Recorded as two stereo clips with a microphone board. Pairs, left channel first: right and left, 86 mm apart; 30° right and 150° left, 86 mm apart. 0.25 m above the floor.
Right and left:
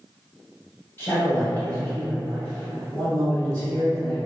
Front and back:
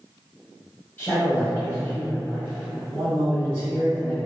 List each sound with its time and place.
1.0 s a man speaking: 75° right, 1.7 m